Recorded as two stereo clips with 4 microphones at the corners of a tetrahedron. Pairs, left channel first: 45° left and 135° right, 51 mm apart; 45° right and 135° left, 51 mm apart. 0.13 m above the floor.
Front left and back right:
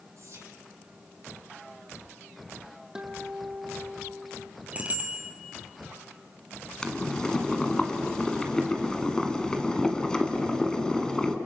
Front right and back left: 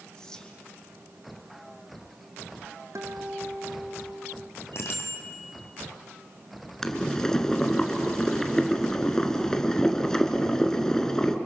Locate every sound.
0.2 s whispering: 120° right, 4 m
3.0 s a guitar: 150° left, 2 m
4.7 s a bicycle bell: 75° right, 3 m
6.8 s boiling: 5° left, 1.6 m